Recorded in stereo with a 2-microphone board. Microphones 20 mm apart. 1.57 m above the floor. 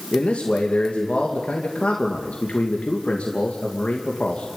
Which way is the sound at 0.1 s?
70° left (ahead or behind).